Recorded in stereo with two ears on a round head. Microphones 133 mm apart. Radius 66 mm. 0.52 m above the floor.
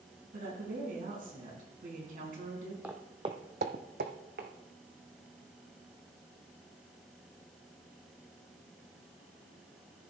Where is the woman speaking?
60° right (ahead or behind), 4 m.